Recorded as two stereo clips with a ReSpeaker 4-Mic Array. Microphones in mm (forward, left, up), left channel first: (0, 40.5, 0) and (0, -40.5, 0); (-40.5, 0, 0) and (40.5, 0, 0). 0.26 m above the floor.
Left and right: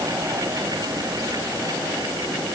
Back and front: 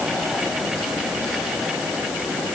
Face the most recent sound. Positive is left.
No sound to turn to.